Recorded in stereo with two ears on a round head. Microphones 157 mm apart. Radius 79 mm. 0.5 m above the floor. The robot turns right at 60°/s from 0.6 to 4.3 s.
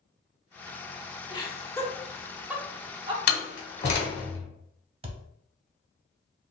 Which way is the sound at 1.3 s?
25° left (ahead or behind).